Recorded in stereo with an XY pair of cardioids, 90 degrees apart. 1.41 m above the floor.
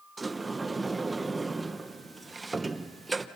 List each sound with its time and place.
0.2 s a sliding door: 25° right, 1.0 m